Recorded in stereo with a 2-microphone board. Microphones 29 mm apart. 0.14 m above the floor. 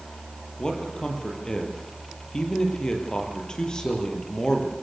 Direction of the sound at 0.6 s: 25° left (ahead or behind).